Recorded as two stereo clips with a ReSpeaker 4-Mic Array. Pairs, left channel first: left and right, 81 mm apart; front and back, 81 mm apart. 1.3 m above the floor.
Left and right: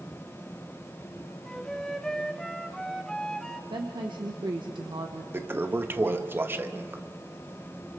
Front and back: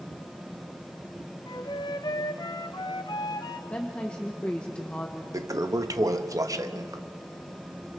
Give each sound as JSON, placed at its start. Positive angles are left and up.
{"t": 1.5, "sound": "a flute", "azimuth_deg": 10, "distance_m": 0.9}
{"t": 3.7, "sound": "a woman speaking", "azimuth_deg": -75, "distance_m": 1.3}
{"t": 5.3, "sound": "a toilet flushing", "azimuth_deg": -145, "distance_m": 0.8}